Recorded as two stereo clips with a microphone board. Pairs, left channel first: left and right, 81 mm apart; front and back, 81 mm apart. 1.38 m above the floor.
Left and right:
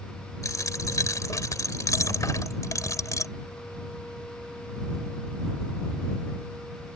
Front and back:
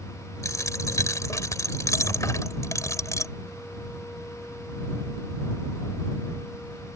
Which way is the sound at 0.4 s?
45° left.